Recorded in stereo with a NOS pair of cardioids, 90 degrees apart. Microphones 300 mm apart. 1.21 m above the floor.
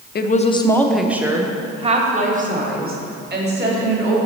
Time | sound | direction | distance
0.1 | a woman speaking | 35° left | 0.6 m